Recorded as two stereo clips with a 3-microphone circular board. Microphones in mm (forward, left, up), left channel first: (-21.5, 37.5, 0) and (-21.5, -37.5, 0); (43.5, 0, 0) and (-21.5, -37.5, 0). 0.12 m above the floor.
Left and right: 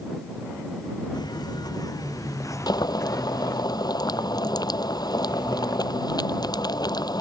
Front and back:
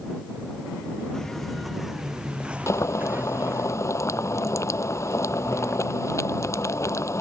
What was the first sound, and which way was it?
Footsteps, 115° left.